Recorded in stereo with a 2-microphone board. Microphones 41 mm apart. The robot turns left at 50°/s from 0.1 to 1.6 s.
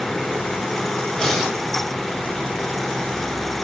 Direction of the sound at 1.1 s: 15° left (ahead or behind).